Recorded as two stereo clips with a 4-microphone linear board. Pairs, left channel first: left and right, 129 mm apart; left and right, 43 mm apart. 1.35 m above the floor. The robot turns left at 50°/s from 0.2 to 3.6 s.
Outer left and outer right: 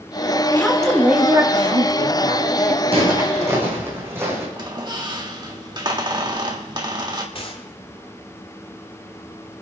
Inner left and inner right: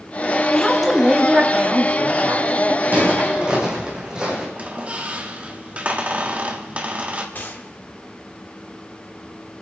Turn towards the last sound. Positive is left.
turn(degrees=45)  # may be behind; listen again after turning